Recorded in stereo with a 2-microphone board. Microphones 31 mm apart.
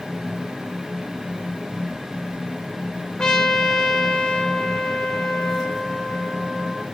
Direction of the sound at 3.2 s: 20° left (ahead or behind).